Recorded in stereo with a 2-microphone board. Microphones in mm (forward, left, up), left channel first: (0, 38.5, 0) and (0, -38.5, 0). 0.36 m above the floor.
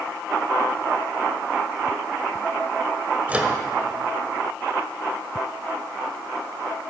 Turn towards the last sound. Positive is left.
turn(degrees=-20)  # may be behind; listen again after turning